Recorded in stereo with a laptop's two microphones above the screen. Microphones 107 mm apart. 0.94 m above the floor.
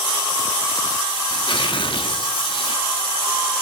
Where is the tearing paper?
55° left (ahead or behind), 1.4 m.